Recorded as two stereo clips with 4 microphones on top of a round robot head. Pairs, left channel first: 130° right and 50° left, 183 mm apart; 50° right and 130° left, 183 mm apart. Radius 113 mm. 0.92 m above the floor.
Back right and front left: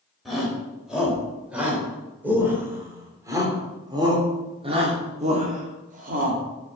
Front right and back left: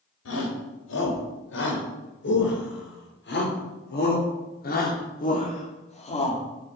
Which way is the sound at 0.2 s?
40° right.